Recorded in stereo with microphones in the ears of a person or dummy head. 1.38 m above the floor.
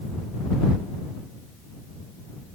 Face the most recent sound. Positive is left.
No sound to turn to.